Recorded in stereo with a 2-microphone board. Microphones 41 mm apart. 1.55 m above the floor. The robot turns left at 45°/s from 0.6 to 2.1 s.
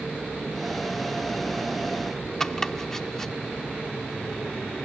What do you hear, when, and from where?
2.4 s chopping: 10° left (ahead or behind)